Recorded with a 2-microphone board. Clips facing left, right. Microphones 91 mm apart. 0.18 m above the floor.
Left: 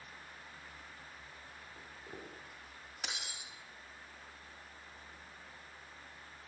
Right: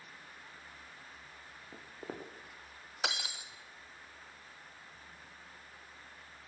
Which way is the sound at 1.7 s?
85° right.